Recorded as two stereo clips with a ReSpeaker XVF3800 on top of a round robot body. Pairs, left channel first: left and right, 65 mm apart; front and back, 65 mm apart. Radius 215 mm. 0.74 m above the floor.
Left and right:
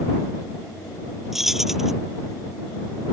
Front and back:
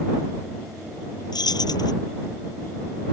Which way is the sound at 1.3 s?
5° right.